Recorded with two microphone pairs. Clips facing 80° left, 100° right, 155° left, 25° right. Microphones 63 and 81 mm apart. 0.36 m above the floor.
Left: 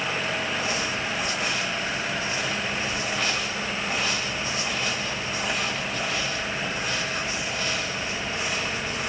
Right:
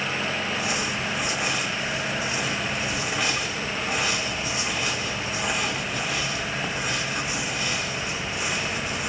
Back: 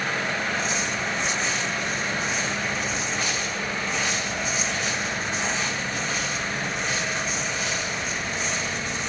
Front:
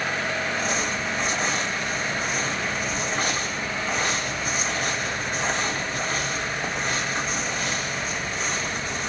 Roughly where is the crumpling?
Ahead right.